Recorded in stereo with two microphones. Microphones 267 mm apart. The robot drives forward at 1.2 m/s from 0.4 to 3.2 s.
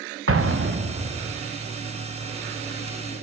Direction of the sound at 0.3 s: 55° right (ahead or behind).